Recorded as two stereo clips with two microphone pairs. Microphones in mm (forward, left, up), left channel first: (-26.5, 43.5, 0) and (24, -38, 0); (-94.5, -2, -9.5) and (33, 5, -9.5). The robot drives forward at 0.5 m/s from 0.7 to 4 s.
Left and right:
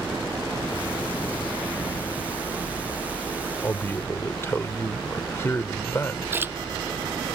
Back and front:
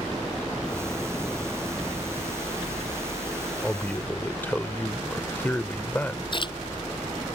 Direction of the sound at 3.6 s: 115° left.